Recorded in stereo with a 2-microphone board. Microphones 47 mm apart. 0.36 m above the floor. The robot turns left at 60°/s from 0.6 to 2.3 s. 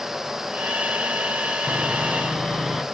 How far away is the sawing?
About 2 m.